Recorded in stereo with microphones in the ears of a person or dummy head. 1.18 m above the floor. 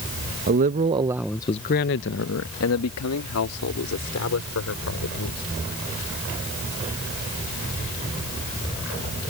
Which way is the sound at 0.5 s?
50° right (ahead or behind).